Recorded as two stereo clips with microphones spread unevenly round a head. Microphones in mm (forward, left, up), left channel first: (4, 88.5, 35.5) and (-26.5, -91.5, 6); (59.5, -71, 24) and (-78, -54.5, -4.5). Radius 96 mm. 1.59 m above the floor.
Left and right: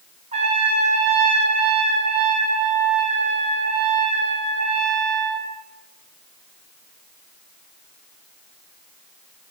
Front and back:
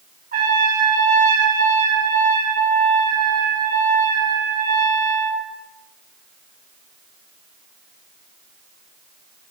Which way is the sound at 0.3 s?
160° right.